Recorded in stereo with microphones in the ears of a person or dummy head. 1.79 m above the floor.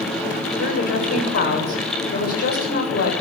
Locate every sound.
0.6 s a woman speaking: 60° left (ahead or behind), 8.5 m